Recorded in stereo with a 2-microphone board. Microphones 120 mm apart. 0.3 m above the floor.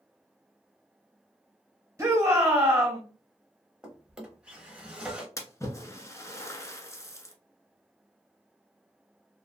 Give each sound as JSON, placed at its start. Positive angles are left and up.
{"t": 2.0, "sound": "a shout", "side_deg": -25, "distance_m": 1.1}
{"t": 3.8, "sound": "a drawer", "side_deg": -10, "distance_m": 0.7}
{"t": 5.4, "sound": "a splash", "side_deg": 25, "distance_m": 0.5}